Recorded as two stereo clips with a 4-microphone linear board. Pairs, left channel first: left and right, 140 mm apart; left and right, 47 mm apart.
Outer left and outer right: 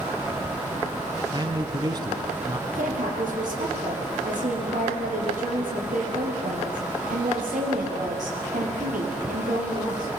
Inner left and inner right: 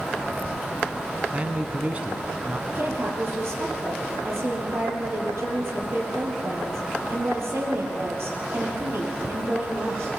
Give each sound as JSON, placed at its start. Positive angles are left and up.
{"t": 1.3, "sound": "a man speaking", "side_deg": -30, "distance_m": 1.5}
{"t": 2.8, "sound": "a woman speaking", "side_deg": -70, "distance_m": 5.5}